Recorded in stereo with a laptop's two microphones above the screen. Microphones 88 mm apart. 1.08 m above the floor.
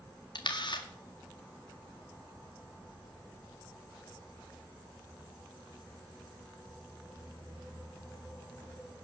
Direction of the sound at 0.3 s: 60° left (ahead or behind).